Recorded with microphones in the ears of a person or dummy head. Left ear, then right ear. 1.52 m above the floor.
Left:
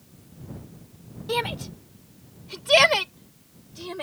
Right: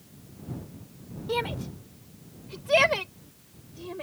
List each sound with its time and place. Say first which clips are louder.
1.3 s a shout: left 3 dB; 25° left (ahead or behind); by 4.0 s 40° left (ahead or behind)